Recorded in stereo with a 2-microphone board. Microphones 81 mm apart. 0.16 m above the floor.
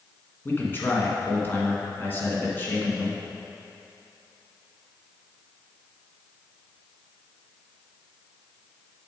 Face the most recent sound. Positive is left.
turn(degrees=25)  # may be behind; listen again after turning